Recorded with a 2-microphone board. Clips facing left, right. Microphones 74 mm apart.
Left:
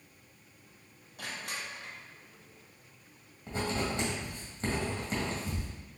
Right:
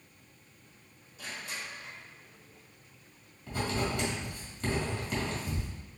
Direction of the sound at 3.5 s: 30° left (ahead or behind).